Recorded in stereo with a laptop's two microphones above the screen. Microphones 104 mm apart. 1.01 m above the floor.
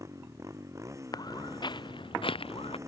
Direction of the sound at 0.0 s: 30° right (ahead or behind).